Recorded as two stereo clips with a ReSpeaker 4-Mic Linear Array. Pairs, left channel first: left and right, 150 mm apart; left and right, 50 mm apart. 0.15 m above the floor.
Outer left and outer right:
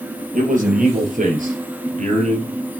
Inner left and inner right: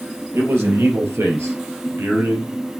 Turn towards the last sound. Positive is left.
turn(degrees=-55)  # may be behind; listen again after turning